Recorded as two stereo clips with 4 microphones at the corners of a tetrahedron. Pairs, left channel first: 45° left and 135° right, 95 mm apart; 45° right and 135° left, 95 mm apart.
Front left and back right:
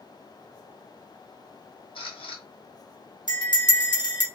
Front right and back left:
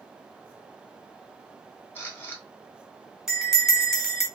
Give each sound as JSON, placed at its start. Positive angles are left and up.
{"t": 1.9, "sound": "a camera shutter", "azimuth_deg": 25, "distance_m": 1.0}
{"t": 3.3, "sound": "a bell", "azimuth_deg": 50, "distance_m": 0.9}